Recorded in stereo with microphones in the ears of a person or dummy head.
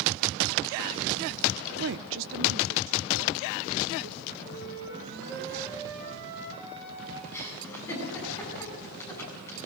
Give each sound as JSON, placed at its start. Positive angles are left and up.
{"t": 1.8, "sound": "a woman speaking", "side_deg": -55, "distance_m": 0.5}
{"t": 4.4, "sound": "a flute", "side_deg": -15, "distance_m": 9.5}
{"t": 7.3, "sound": "a giggle", "side_deg": 15, "distance_m": 7.5}